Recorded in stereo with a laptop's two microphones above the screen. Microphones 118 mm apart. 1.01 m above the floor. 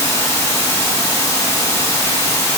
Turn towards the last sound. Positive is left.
turn(degrees=25)  # may be behind; listen again after turning